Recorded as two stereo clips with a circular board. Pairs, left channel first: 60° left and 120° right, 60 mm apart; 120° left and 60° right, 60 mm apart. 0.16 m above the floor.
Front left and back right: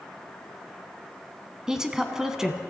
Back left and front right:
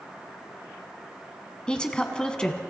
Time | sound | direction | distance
1.7 | a woman speaking | 175° left | 1.1 m